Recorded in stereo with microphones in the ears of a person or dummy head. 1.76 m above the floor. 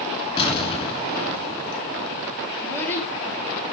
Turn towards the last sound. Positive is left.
turn(degrees=15)  # may be behind; listen again after turning